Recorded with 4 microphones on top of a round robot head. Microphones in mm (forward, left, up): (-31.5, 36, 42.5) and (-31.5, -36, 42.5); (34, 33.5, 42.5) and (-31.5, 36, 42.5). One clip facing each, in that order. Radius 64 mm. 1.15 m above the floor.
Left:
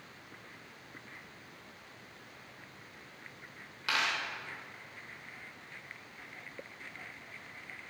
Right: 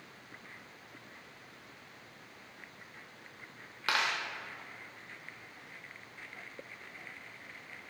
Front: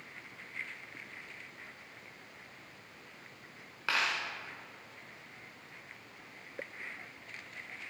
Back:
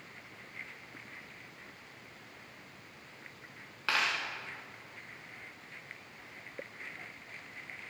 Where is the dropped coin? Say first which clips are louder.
Right 1 dB, back 1 dB; 90° right, 0.9 m.